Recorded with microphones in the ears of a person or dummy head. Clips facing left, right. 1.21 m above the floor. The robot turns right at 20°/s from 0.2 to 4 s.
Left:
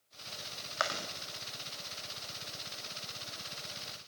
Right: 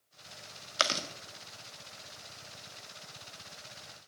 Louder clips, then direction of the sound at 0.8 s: Right 3 dB; 45° right (ahead or behind).